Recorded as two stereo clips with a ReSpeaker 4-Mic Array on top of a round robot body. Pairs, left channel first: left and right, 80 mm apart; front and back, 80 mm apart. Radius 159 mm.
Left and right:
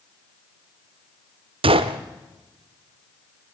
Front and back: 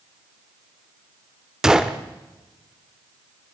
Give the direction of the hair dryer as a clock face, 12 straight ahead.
I don't hear a hair dryer.